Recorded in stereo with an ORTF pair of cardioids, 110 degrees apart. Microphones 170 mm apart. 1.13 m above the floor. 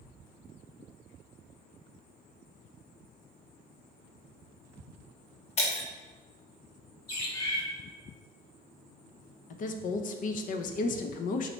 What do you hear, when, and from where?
5.6 s breaking glass: 40° left, 1.2 m
7.1 s a bird: 30° left, 2 m
9.5 s a woman speaking: 50° left, 0.6 m